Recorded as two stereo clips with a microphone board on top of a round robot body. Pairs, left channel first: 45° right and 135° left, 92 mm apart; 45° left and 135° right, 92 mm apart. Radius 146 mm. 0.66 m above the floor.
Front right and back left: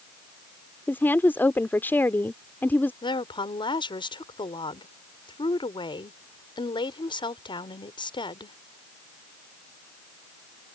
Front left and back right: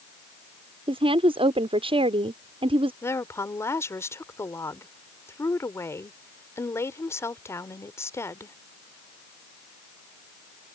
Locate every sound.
0.9 s a woman speaking: 115° right
3.0 s a woman speaking: 15° right